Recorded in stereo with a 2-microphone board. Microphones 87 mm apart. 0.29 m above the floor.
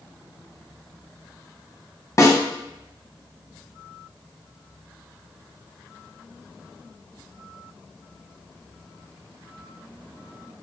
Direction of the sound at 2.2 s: 40° left (ahead or behind).